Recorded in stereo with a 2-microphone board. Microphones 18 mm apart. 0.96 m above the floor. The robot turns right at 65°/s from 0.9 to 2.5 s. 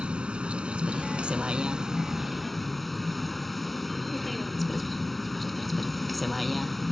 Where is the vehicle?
100° right; by 6.9 s 5° left.